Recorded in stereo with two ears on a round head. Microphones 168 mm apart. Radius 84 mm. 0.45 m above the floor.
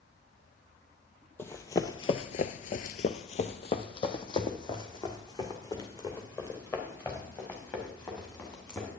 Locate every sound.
1.4 s running footsteps: 15° left (ahead or behind), 0.8 m; by 8.9 s 20° left (ahead or behind), 4 m